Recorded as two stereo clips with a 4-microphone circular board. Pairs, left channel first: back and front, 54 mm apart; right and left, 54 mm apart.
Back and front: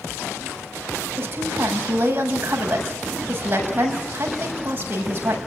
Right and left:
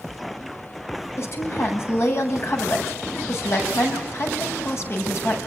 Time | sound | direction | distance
1.2 | a woman speaking | 50° right | 7 m